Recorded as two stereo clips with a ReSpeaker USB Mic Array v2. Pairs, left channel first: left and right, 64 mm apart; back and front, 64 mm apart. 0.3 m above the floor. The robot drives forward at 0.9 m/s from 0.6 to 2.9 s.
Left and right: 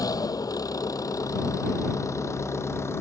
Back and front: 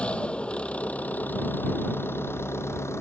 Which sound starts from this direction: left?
An engine running, at 0.0 s.